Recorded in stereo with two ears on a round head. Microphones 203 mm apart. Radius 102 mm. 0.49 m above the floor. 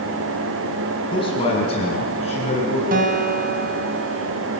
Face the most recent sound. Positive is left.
turn(degrees=-40)  # may be behind; listen again after turning